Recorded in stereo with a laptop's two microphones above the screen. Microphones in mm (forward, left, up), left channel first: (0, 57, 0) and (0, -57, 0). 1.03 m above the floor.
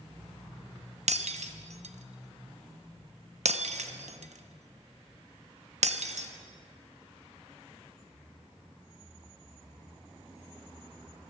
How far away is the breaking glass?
About 0.6 m.